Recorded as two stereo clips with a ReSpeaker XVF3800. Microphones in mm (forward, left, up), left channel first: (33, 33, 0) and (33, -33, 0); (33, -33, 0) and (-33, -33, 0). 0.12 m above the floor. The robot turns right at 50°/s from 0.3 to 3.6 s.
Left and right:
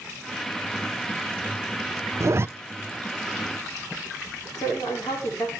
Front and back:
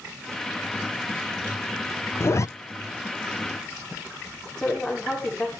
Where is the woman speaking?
80° left, 8.5 m.